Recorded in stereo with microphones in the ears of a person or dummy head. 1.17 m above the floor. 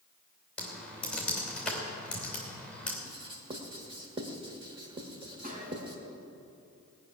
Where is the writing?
30° right (ahead or behind), 1.5 m.